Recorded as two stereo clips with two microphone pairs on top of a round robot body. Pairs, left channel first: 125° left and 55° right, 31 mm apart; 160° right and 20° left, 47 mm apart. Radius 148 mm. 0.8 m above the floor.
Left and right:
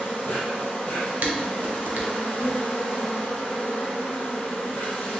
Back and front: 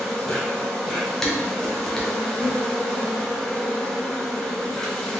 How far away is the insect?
About 1.6 m.